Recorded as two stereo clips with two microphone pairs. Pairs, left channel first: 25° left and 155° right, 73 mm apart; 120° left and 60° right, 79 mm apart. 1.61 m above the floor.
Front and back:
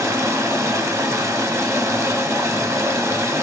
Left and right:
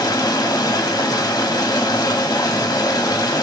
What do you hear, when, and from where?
0.0 s running water: 155° left, 0.8 m